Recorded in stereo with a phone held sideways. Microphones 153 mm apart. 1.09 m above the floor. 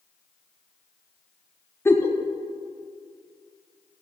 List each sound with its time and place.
1.9 s a giggle: 15° left (ahead or behind), 0.6 m